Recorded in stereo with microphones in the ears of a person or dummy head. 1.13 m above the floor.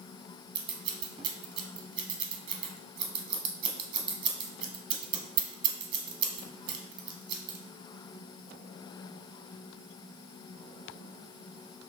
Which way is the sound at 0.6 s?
30° right (ahead or behind).